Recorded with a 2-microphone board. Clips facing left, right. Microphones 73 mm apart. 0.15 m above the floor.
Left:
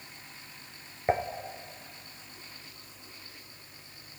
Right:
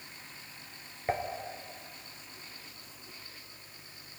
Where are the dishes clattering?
20° left (ahead or behind), 1.7 m.